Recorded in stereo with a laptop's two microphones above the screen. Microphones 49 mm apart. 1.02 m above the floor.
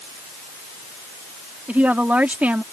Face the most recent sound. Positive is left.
turn(degrees=-35)  # may be behind; listen again after turning